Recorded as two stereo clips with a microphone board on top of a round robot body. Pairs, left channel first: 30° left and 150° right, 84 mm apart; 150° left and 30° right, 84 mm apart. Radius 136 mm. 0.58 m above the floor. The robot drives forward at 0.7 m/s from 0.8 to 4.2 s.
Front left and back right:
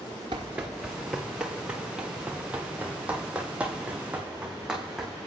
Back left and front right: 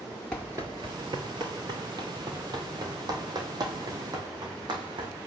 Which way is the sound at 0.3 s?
130° right.